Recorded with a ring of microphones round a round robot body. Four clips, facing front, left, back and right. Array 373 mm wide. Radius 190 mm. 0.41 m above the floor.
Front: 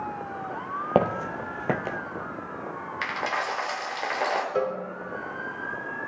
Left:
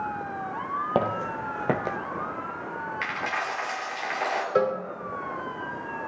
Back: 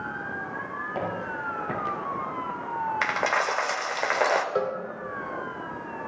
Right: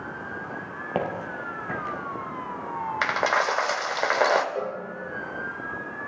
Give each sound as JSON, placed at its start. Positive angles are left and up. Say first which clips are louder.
{"t": 0.9, "sound": "footsteps", "louder": "left 1 dB, front 8 dB", "azimuth_deg": 10, "distance_m": 0.8}
{"t": 3.0, "sound": "a dropped coin", "louder": "right 9 dB, back 1 dB", "azimuth_deg": -115, "distance_m": 0.8}
{"t": 4.5, "sound": "a cowbell", "louder": "left 7 dB, even", "azimuth_deg": 95, "distance_m": 0.8}